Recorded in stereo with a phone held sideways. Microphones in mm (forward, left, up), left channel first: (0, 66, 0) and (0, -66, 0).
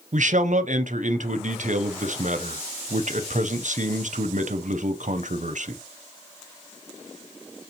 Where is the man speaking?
70° right (ahead or behind), 0.6 m.